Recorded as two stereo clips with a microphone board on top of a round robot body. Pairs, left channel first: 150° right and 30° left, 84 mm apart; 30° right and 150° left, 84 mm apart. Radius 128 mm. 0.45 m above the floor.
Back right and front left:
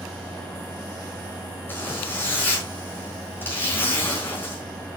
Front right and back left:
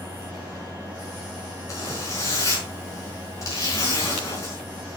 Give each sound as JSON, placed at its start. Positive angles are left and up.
{"t": 1.7, "sound": "a zipper", "azimuth_deg": -85, "distance_m": 4.5}